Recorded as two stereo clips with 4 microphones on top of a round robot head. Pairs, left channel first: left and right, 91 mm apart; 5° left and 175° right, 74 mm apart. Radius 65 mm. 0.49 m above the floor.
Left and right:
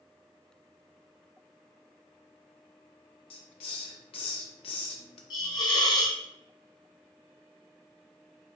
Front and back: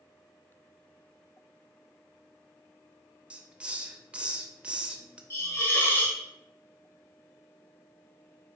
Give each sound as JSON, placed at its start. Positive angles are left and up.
{"t": 3.3, "sound": "a hiss", "azimuth_deg": 110, "distance_m": 0.6}
{"t": 5.3, "sound": "a hiss", "azimuth_deg": 60, "distance_m": 1.1}